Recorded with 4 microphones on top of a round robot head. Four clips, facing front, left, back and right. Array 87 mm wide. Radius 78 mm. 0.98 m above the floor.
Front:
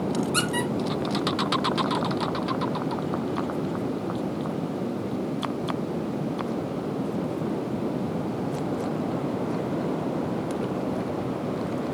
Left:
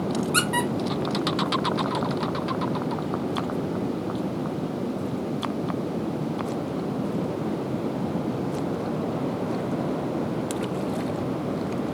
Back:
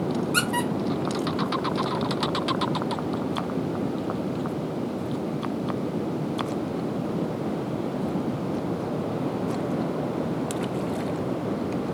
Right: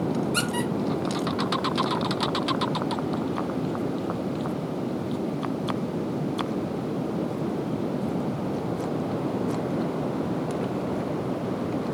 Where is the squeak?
125° left, 0.7 m.